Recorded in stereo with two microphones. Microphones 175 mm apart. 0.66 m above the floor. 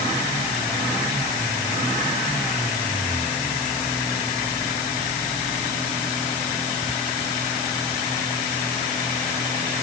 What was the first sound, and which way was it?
Only background noise.